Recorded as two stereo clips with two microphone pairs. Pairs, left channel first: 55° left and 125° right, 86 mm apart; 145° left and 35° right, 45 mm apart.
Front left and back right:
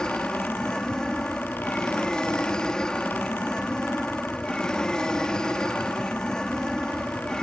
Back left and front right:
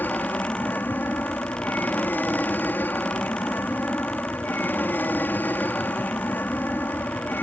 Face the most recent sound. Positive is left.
turn(degrees=135)